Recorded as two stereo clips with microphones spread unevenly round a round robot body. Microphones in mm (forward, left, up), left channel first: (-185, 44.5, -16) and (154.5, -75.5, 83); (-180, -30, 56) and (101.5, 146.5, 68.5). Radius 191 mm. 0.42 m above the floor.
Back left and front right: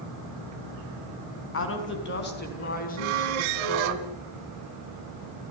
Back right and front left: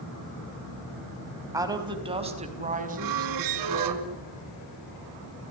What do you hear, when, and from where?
1.5 s a woman speaking: 115° left, 3.5 m; by 4.0 s 90° left, 5 m
3.0 s a squeak: 10° right, 1.2 m